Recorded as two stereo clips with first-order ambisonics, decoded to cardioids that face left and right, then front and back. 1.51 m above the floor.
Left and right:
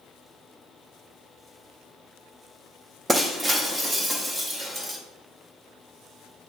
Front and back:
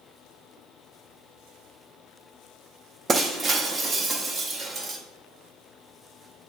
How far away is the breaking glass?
About 0.6 m.